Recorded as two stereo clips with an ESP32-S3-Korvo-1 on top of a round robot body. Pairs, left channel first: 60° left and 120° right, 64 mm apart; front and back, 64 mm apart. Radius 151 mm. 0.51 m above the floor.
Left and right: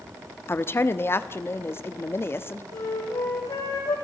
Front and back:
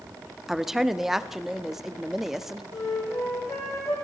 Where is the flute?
45° left, 5.5 m.